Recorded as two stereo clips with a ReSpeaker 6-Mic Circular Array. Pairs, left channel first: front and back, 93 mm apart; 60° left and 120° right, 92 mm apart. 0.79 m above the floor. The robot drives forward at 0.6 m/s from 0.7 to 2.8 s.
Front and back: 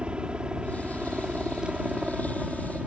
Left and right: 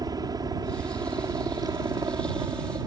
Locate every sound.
0.0 s a helicopter: 105° right; by 2.9 s 100° right